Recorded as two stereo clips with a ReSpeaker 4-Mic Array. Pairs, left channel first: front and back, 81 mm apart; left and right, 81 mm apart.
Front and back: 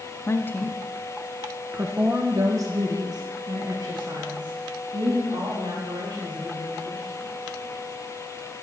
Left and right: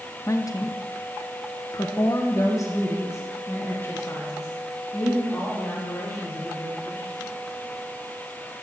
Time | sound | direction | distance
0.3 | a woman speaking | 50° left | 0.8 m